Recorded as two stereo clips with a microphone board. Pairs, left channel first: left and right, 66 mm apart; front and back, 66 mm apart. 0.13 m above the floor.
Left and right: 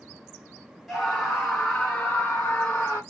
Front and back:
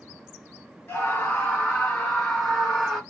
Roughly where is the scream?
Ahead.